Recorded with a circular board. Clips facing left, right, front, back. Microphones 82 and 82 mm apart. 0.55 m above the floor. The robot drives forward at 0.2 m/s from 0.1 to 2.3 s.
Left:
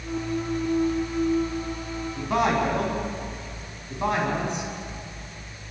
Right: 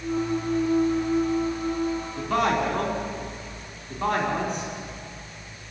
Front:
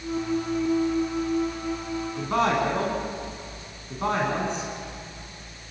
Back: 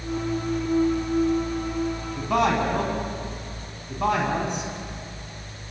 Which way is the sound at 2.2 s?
165° left.